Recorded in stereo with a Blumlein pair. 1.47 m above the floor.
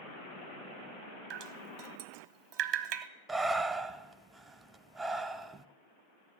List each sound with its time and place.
1.3 s dripping: 40° right, 0.9 m
3.3 s breathing: 15° right, 0.6 m